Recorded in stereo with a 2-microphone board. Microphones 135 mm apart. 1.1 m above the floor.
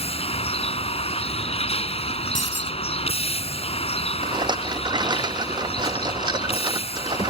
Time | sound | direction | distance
0.0 | a vehicle | 45° left (ahead or behind) | ?
2.4 | breaking glass | 70° left (ahead or behind) | ?
4.2 | a rattle | 30° right (ahead or behind) | ?